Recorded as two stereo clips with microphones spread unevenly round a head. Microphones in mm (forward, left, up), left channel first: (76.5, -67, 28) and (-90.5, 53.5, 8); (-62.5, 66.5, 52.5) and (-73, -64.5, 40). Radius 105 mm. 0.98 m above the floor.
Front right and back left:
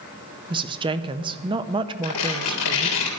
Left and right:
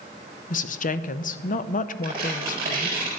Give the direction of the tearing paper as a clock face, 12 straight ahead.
1 o'clock.